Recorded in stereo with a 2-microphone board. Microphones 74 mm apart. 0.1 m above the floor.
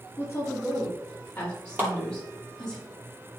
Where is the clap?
25° right (ahead or behind), 2.5 m.